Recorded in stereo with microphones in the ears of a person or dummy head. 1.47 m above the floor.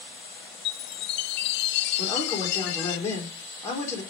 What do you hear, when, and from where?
0.7 s a chime: 60° left (ahead or behind), 0.5 m
2.0 s a man speaking: 15° left (ahead or behind), 4.5 m